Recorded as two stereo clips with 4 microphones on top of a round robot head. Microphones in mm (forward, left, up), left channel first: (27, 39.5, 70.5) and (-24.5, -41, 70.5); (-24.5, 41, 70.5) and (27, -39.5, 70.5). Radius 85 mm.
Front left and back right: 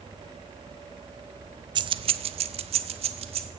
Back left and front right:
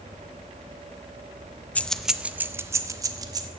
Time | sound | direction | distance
1.8 | keys jangling | 165° right | 0.5 m